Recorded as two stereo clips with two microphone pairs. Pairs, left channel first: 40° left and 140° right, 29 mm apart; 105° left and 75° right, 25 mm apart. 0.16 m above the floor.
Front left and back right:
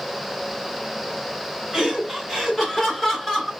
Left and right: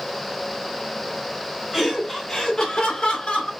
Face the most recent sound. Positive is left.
turn(degrees=125)